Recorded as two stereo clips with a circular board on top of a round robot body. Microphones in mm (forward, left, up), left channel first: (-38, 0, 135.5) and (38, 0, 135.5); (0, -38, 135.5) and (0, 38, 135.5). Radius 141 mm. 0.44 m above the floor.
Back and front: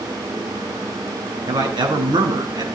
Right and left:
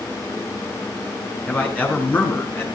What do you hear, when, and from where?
1.5 s a man speaking: 15° right, 7 m; by 2.8 s 30° right, 7 m